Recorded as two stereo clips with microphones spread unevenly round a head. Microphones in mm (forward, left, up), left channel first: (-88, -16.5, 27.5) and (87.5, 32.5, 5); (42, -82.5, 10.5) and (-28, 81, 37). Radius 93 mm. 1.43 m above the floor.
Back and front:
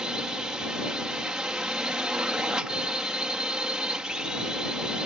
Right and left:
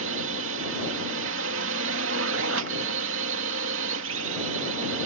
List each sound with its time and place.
0.0 s a drone: 100° left